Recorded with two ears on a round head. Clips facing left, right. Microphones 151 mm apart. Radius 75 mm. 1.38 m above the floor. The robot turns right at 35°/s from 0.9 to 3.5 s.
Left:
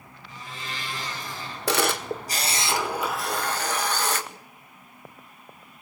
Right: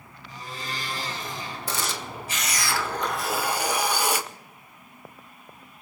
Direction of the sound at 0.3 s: 30° right (ahead or behind).